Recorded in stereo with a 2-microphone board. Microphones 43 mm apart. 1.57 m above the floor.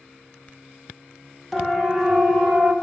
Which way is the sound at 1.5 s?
5° right (ahead or behind).